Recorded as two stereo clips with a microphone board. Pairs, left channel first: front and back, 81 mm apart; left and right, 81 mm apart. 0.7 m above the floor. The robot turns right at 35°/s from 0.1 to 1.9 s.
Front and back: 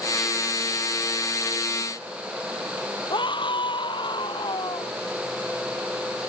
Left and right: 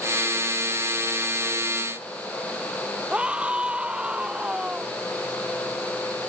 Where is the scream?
15° right.